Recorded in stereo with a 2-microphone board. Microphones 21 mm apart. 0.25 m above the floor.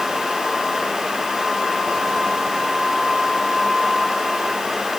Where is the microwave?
I don't hear a microwave.